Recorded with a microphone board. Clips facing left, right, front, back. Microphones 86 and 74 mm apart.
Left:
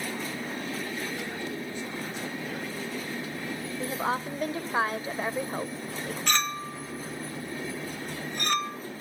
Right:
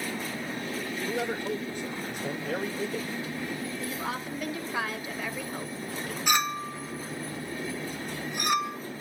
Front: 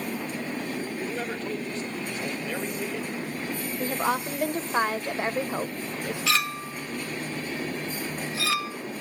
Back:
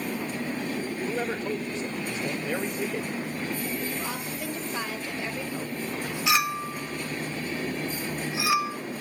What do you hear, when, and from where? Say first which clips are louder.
1.1 s a man speaking: right 4 dB, back 2 dB; 110° right, 1.9 m
3.8 s a woman speaking: left 4 dB, front 6 dB; 35° left, 1.5 m
6.3 s a clink: right 3 dB, back 4 dB; 145° right, 0.6 m